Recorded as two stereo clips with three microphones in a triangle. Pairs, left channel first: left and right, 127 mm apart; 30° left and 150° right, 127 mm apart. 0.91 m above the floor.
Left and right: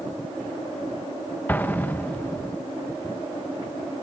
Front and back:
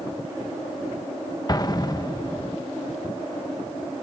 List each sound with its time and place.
1.5 s an explosion: 30° left